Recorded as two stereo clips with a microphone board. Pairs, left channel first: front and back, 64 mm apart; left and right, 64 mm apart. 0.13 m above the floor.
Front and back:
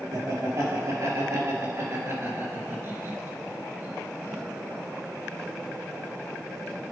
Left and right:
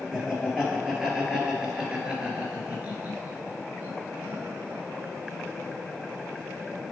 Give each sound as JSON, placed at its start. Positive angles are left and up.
{"t": 0.1, "sound": "laughter", "azimuth_deg": -175, "distance_m": 3.0}